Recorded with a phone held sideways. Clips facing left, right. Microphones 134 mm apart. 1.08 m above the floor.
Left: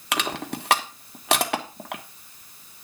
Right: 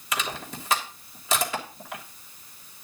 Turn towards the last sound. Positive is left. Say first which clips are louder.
# left 4 dB
turn(degrees=70)  # may be behind; listen again after turning